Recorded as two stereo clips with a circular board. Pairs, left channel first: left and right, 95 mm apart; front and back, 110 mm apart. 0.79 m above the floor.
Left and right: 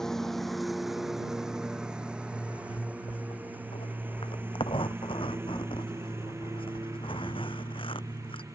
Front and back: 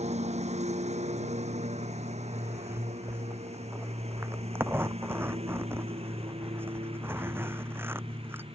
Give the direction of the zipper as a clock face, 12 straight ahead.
8 o'clock.